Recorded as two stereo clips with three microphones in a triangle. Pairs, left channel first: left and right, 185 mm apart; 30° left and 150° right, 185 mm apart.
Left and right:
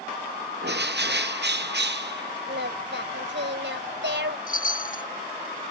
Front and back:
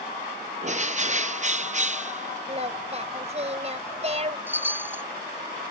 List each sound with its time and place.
0.6 s a bird: 100° right
2.5 s singing: 95° right
4.5 s a chime: 130° left